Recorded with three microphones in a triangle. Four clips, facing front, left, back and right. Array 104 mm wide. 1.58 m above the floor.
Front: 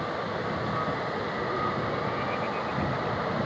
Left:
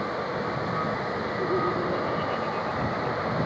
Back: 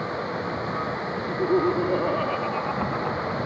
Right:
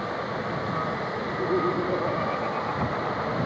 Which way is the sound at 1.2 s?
175° right.